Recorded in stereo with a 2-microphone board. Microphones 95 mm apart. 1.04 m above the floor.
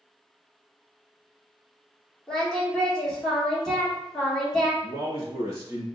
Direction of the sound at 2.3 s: 10° left (ahead or behind).